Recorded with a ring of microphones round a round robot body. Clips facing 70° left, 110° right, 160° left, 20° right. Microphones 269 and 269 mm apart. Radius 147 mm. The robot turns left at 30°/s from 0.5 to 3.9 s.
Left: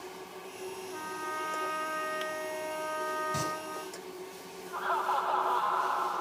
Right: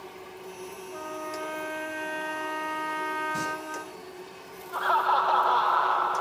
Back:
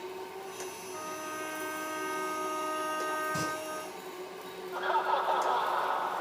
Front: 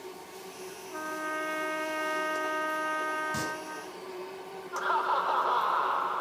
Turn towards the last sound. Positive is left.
turn(degrees=-95)